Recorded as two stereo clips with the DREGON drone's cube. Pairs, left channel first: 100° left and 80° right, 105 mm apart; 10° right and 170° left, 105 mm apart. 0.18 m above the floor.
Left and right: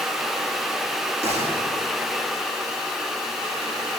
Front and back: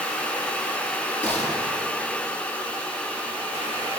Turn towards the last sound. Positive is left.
turn(degrees=-90)